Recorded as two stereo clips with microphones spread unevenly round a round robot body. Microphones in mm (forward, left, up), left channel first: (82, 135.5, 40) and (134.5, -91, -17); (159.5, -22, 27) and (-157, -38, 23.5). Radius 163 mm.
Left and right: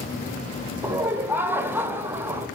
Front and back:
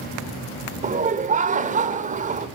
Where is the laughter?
130° right, 1.0 m.